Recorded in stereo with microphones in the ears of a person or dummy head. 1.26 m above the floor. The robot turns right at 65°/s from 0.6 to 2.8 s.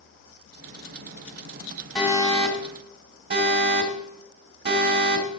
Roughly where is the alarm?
Centre.